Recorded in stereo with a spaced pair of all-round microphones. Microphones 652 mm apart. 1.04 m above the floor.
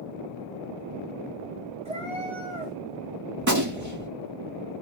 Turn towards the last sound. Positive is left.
turn(degrees=-25)  # may be behind; listen again after turning